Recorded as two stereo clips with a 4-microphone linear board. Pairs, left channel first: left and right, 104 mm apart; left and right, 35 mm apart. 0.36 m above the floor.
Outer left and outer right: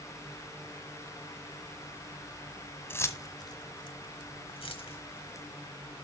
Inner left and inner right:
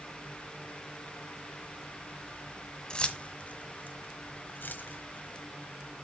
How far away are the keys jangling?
About 0.7 m.